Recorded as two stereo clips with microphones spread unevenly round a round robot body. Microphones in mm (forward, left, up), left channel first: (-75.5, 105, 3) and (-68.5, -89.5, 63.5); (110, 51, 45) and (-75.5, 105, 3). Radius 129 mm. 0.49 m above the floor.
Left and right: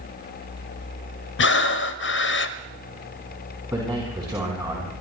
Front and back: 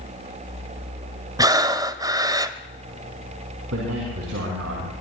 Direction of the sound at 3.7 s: 165° right.